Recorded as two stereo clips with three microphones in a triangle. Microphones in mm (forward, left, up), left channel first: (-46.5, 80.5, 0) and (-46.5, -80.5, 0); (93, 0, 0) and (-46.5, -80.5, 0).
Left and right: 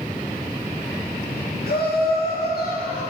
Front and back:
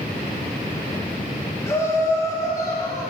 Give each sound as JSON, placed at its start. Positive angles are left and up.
{"t": 1.7, "sound": "laughter", "azimuth_deg": 105, "distance_m": 2.0}